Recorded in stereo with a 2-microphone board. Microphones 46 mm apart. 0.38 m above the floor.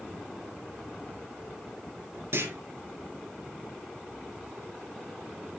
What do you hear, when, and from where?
2.3 s a clunk: 70° right (ahead or behind), 4 m